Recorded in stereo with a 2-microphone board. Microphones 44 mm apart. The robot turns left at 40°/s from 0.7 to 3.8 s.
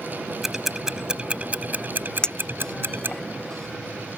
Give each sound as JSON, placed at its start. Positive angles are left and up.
{"t": 0.4, "sound": "ticking", "side_deg": -10}
{"t": 2.2, "sound": "a clink", "side_deg": 25}